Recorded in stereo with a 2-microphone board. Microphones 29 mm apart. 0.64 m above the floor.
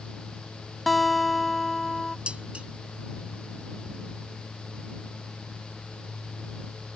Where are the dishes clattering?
40° right (ahead or behind).